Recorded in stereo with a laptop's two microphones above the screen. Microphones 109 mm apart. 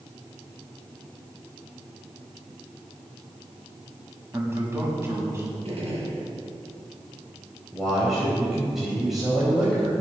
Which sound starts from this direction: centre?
A man speaking, at 7.7 s.